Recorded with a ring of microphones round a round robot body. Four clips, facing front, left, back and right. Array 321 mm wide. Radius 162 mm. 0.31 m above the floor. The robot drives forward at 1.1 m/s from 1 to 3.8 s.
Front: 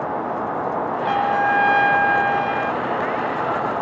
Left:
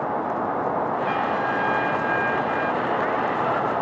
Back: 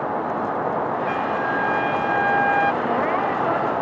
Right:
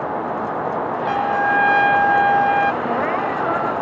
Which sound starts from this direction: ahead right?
A trumpet, at 1.0 s.